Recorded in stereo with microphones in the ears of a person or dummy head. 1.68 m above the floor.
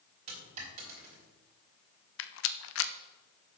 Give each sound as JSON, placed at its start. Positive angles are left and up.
{"t": 0.3, "sound": "a dropped coin", "side_deg": -50, "distance_m": 3.5}
{"t": 2.2, "sound": "a rattle", "side_deg": 70, "distance_m": 0.6}